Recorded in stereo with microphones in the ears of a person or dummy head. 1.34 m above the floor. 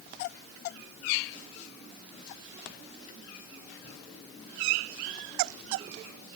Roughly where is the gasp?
I don't hear a gasp.